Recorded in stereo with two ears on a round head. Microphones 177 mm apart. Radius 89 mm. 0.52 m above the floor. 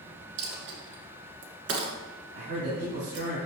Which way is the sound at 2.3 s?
65° right (ahead or behind).